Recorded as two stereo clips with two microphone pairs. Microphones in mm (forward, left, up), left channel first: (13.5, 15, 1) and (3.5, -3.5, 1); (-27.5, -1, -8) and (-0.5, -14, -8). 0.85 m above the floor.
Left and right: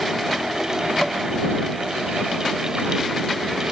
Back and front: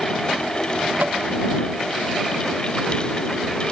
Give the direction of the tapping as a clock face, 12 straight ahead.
1 o'clock.